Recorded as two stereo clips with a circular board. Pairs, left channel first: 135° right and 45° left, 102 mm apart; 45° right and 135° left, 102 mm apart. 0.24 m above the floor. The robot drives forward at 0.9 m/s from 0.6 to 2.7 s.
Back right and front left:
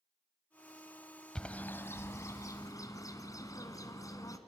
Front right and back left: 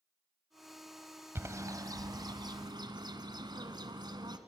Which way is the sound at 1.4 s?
155° left.